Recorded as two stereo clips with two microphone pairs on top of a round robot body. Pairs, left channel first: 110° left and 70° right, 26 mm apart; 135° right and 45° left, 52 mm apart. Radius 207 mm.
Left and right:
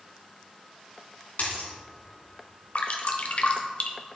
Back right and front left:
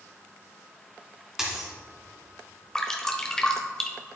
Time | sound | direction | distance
1.4 | a dropped coin | 125° left | 2 m
2.8 | dripping | 145° left | 1.2 m